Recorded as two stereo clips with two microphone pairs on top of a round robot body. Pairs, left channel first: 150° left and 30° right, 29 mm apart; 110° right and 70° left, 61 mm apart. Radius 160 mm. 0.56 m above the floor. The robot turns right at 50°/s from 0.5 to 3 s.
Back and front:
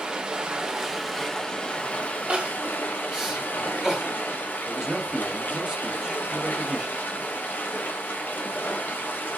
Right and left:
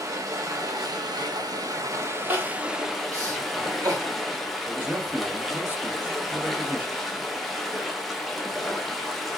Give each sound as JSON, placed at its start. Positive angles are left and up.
{"t": 0.0, "sound": "running water", "azimuth_deg": 30, "distance_m": 0.8}
{"t": 2.3, "sound": "crying", "azimuth_deg": 15, "distance_m": 1.7}
{"t": 4.7, "sound": "a man speaking", "azimuth_deg": 20, "distance_m": 1.2}